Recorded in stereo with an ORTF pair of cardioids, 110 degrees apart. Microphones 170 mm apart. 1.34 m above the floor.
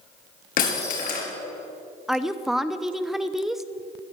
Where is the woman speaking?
Straight ahead, 0.6 m.